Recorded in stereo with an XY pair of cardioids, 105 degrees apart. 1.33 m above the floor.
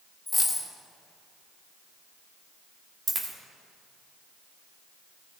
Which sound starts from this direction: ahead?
A dropped coin, at 0.3 s.